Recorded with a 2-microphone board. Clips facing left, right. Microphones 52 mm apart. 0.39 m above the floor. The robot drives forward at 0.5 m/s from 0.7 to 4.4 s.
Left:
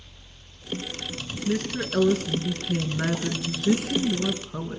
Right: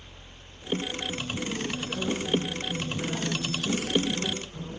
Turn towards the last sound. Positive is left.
turn(degrees=75)  # may be behind; listen again after turning